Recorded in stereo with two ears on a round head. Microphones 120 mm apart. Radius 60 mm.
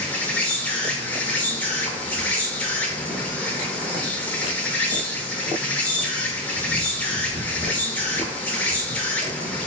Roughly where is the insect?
Centre.